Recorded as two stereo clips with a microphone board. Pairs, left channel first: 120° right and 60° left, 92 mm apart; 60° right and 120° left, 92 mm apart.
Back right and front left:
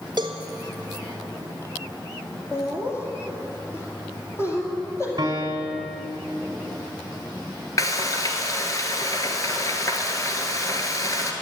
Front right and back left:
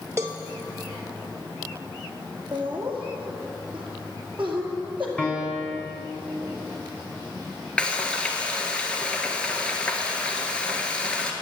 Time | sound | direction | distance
0.2 | a cowbell | 65° left | 0.9 m
2.5 | laughter | 170° right | 2.5 m
5.2 | a piano | 15° left | 2.5 m
7.8 | frying | 130° right | 1.2 m